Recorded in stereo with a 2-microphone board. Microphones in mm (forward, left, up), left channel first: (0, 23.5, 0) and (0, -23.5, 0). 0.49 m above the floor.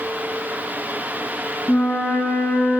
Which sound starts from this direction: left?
A flute, at 1.7 s.